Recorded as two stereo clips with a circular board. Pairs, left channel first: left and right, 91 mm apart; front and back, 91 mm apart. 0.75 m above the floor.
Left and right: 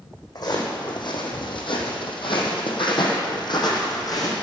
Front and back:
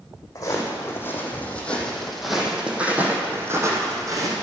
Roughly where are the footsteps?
Ahead left.